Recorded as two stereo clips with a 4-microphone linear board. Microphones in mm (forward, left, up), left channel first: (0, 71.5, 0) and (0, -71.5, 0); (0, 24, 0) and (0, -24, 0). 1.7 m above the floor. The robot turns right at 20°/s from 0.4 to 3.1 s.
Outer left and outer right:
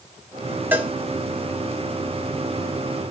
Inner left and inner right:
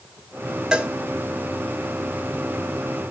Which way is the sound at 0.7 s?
15° right (ahead or behind).